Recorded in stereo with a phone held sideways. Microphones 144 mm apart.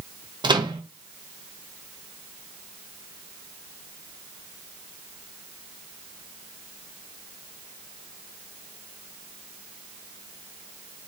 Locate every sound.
0.4 s a microwave: 30° right (ahead or behind), 0.6 m